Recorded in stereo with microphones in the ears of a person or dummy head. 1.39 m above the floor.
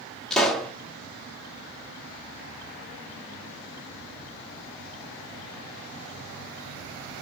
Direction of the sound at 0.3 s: 5° left (ahead or behind).